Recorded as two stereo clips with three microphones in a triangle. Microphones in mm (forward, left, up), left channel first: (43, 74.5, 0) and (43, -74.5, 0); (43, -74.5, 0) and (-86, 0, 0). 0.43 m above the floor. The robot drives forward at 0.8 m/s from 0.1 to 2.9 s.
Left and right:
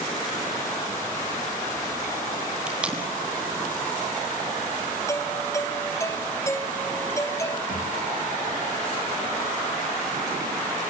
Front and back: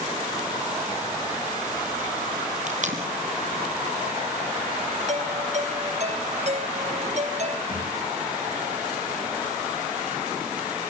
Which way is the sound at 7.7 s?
100° left.